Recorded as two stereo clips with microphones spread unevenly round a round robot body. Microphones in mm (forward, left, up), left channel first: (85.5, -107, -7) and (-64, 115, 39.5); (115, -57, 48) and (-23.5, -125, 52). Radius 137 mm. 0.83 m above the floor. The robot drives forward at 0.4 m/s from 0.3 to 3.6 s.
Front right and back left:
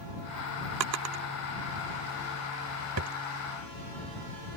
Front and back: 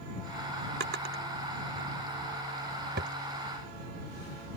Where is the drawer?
160° left; by 3.2 s 170° left.